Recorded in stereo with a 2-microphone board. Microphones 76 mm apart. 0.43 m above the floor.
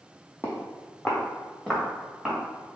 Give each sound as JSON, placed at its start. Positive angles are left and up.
{"t": 0.4, "sound": "footsteps", "side_deg": 30, "distance_m": 1.0}